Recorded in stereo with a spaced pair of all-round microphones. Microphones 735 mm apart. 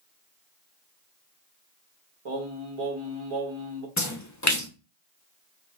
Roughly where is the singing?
Right.